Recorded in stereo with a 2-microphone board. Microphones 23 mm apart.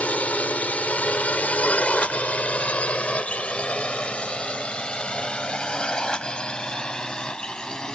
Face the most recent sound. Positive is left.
turn(degrees=35)  # may be behind; listen again after turning